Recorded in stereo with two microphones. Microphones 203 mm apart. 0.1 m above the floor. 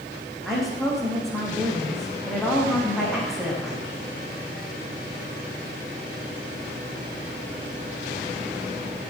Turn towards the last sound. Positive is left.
turn(degrees=0)  # may be behind; listen again after turning